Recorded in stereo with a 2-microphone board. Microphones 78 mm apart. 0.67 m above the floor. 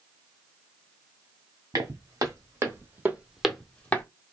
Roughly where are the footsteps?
Right.